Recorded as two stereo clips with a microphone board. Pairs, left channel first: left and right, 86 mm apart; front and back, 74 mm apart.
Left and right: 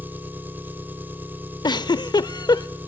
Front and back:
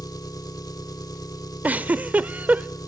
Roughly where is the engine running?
Ahead right.